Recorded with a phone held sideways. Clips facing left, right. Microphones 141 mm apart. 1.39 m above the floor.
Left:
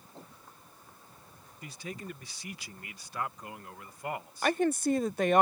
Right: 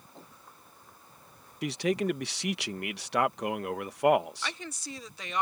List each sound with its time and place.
1.6 s a man speaking: 80° right
4.4 s a woman speaking: 50° left (ahead or behind)